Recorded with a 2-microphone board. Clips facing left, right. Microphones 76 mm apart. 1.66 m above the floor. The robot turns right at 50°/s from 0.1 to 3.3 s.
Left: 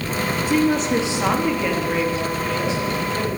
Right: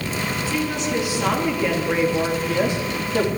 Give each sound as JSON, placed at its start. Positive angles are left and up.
{"t": 0.5, "sound": "a woman speaking", "azimuth_deg": 125, "distance_m": 3.0}